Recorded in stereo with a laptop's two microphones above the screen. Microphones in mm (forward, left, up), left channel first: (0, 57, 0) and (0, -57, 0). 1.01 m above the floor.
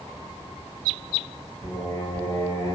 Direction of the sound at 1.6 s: 60° left (ahead or behind).